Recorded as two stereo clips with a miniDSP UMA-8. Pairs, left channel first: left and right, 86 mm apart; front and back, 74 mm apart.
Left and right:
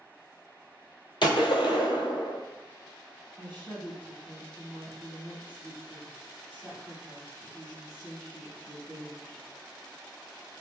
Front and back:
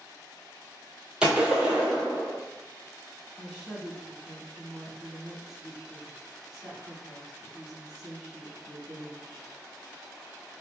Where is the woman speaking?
105° left, 1.2 m.